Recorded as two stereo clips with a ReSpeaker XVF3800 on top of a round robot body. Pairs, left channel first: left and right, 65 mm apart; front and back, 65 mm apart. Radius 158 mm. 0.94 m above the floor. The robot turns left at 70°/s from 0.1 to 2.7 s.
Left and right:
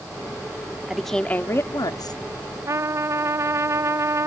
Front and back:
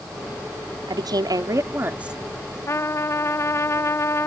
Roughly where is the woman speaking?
Behind.